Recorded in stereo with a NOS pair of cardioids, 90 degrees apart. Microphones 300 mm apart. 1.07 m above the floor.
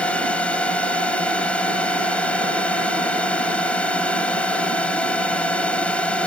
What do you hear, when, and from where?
0.0 s a drone: 5° left